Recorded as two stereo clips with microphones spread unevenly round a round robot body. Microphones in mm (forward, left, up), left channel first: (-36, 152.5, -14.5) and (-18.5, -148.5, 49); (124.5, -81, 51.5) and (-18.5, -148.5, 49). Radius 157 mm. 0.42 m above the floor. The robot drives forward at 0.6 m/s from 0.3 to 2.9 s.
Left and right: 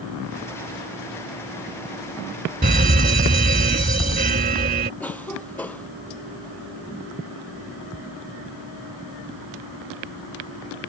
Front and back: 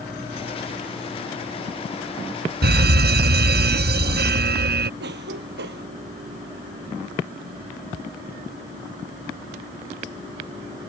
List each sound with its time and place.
2.6 s a fire alarm: 150° right
5.0 s a cough: straight behind